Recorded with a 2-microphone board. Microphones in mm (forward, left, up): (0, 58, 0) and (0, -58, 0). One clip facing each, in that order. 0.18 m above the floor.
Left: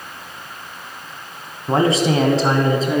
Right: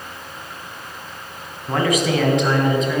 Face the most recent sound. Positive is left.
turn(degrees=35)  # may be behind; listen again after turning